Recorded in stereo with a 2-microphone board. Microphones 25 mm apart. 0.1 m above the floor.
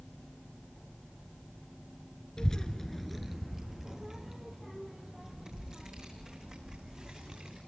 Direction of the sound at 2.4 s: 35° left (ahead or behind).